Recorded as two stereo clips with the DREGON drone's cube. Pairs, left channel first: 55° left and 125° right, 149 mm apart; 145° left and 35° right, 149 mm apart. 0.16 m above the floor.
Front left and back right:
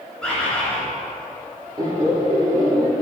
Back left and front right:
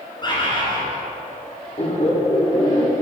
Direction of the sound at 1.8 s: Straight behind.